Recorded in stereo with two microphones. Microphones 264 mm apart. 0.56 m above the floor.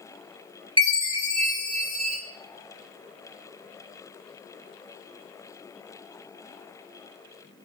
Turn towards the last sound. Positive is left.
turn(degrees=-70)  # may be behind; listen again after turning